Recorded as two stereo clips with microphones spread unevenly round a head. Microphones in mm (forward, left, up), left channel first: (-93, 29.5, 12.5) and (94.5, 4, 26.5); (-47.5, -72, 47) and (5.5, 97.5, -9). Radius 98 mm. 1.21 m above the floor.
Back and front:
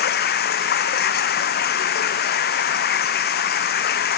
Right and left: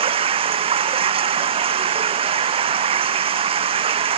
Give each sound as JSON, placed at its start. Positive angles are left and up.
{"t": 0.0, "sound": "running water", "azimuth_deg": 135}